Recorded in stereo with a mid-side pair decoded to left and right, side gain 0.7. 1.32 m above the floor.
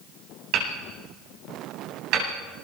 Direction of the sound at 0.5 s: 55° right.